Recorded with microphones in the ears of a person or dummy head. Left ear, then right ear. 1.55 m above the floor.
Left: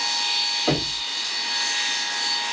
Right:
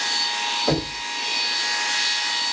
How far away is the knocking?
About 2 m.